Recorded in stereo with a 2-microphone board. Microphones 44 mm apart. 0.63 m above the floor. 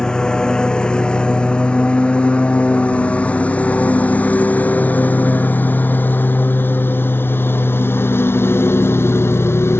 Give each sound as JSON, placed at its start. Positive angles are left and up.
{"t": 0.0, "sound": "a lawn mower", "side_deg": 20}